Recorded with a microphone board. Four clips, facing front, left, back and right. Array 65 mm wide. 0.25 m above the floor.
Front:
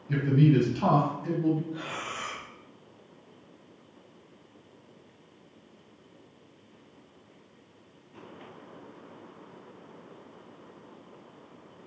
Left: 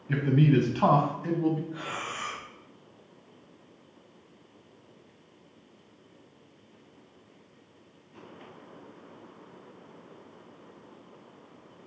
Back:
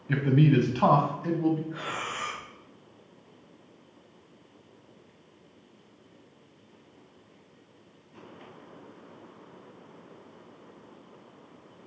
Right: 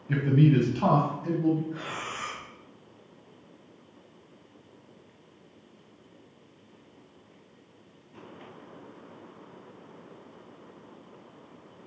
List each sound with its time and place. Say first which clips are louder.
0.1 s a man speaking: right 1 dB, even; 175° left, 1.8 m; by 1.6 s 125° left, 2.5 m
1.7 s breathing: even, back 2 dB; 165° right, 2.0 m